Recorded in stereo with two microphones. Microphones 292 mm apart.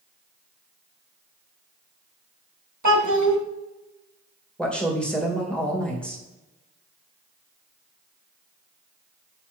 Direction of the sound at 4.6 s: 5° left (ahead or behind).